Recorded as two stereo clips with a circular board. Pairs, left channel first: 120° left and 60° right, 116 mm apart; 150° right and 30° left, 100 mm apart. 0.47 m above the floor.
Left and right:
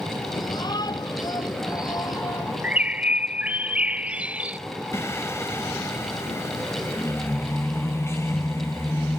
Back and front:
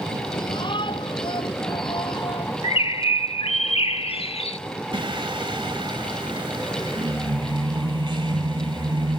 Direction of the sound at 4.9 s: 55° left.